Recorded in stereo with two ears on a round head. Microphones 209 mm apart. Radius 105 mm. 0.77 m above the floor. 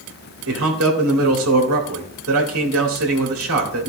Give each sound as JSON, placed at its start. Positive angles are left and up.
{"t": 0.5, "sound": "a man speaking", "side_deg": -70, "distance_m": 2.0}